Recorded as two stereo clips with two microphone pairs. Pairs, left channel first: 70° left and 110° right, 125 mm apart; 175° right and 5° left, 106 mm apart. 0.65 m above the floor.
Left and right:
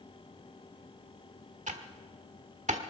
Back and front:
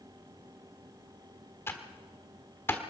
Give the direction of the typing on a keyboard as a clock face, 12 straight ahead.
4 o'clock.